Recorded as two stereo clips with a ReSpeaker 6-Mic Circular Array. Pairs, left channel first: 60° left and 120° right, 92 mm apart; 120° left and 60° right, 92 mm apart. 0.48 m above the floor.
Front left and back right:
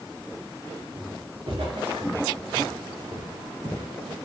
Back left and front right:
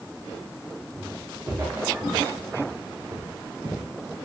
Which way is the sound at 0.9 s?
125° right.